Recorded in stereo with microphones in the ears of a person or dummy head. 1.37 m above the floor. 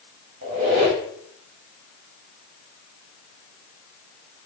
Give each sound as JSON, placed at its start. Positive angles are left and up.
{"t": 0.4, "sound": "a squeak", "side_deg": -30, "distance_m": 0.8}